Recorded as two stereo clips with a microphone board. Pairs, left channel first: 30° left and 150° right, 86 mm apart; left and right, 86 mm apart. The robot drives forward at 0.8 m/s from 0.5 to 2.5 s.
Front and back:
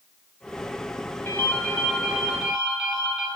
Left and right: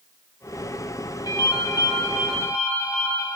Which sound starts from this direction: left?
A ringtone, at 1.2 s.